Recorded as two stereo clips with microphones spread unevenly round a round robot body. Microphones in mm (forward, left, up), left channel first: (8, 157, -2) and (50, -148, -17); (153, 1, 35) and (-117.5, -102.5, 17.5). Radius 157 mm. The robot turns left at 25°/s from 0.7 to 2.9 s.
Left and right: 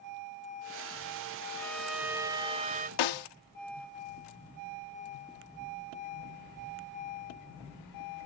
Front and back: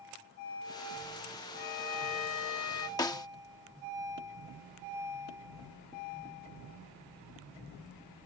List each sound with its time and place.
1.6 s a violin: 15° left; by 2.9 s 20° right
3.0 s a snare drum: 100° left